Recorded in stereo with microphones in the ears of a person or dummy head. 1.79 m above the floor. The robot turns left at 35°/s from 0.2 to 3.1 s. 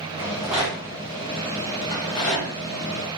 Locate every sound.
0.2 s a rattle: 10° right (ahead or behind), 0.7 m; by 2.5 s 35° left (ahead or behind), 0.7 m